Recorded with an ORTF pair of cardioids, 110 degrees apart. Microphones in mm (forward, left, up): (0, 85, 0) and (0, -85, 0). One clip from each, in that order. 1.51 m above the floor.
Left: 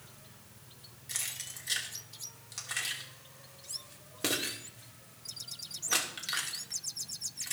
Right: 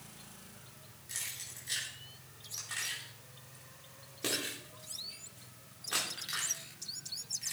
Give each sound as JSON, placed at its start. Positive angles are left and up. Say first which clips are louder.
{"t": 1.1, "sound": "keys jangling", "louder": "left 3 dB", "azimuth_deg": 30, "distance_m": 2.5}